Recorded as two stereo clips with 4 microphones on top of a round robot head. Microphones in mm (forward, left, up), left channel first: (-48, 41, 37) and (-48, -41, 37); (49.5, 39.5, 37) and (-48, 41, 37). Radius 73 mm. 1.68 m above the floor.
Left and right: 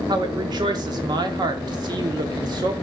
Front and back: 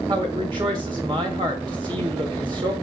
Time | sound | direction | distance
0.1 | a woman speaking | 125° right | 1.4 m